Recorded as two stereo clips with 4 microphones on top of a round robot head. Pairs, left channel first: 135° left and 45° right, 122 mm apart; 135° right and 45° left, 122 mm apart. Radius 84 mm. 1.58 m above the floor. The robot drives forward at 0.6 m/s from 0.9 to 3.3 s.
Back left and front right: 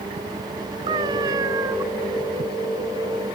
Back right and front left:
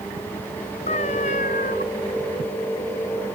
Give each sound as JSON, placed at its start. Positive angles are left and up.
{"t": 0.9, "sound": "a cat meowing", "azimuth_deg": -100}